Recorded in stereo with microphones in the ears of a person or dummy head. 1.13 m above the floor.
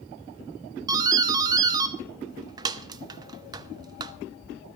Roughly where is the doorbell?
Right.